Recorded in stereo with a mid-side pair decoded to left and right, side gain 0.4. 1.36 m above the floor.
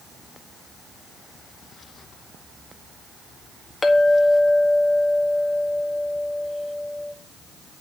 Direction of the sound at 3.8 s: 30° left.